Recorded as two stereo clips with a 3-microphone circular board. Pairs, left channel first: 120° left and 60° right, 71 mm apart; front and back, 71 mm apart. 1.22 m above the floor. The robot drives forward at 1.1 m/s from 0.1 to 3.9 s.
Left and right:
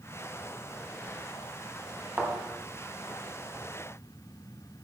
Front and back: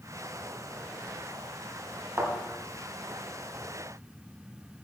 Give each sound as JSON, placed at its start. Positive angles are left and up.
{"t": 2.2, "sound": "a thud", "azimuth_deg": -130, "distance_m": 3.0}